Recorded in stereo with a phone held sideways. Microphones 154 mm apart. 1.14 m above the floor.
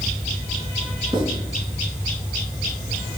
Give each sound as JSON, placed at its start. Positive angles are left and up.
{"t": 1.1, "sound": "writing", "side_deg": -35, "distance_m": 4.5}